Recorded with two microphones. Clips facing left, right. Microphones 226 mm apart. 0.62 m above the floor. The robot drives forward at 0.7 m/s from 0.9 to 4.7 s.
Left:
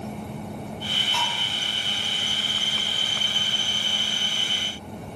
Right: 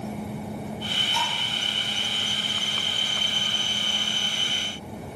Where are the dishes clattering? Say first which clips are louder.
Even; 65° left (ahead or behind), 2.5 m; by 1.3 s 60° left (ahead or behind), 2.5 m.